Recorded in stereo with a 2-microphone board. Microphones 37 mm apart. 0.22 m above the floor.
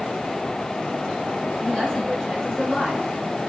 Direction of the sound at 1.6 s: 15° left (ahead or behind).